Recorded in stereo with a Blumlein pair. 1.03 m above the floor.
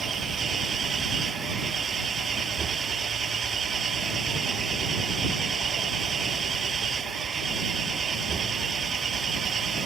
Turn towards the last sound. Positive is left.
turn(degrees=-20)